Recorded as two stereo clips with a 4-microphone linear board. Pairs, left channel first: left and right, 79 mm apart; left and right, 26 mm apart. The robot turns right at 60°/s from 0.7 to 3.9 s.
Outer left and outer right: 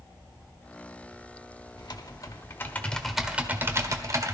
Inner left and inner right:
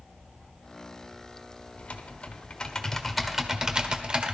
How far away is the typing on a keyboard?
About 1.2 m.